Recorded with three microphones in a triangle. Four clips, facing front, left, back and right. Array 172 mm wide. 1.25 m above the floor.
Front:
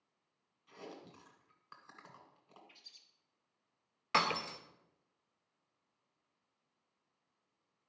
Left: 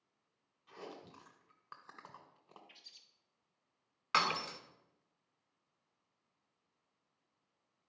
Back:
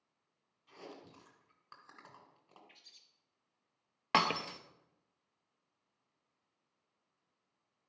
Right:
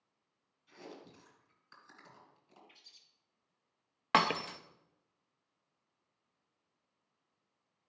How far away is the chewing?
About 1.7 m.